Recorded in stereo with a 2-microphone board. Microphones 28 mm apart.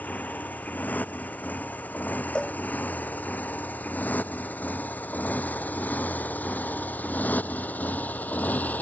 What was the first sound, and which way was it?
A motorcycle, 80° left.